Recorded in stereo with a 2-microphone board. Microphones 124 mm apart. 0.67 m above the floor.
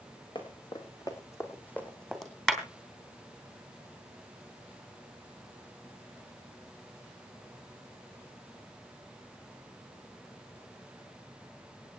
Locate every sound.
0.3 s running footsteps: 40° left (ahead or behind), 3 m; by 2.3 s centre (ahead or behind), 2.5 m
2.5 s a clap: 5° left (ahead or behind), 2.5 m